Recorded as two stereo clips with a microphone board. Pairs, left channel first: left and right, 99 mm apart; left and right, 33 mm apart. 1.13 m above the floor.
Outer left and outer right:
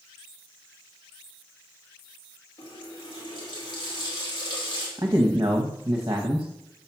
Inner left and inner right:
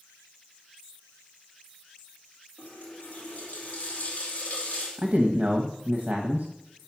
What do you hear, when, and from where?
2.6 s a running tap: 55° left (ahead or behind), 2 m
5.0 s a man speaking: 40° right (ahead or behind), 0.8 m